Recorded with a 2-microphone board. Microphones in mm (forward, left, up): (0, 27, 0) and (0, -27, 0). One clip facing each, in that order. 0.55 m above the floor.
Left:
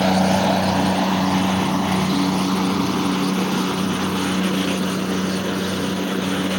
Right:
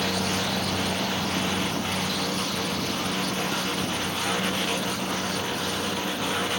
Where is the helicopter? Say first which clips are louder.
Left 10 dB; 65° left (ahead or behind); by 6.6 s 75° left (ahead or behind).